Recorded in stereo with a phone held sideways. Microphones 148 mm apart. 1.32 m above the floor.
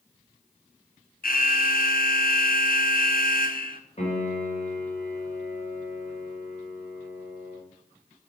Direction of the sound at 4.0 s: 45° left (ahead or behind).